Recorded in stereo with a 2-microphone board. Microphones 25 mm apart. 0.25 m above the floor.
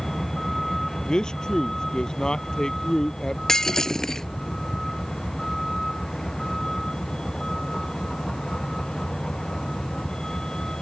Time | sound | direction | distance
0.0 | a vehicle | 15° left (ahead or behind) | ?
1.1 | a man speaking | 30° left (ahead or behind) | ?
3.5 | breaking glass | 25° left (ahead or behind) | ?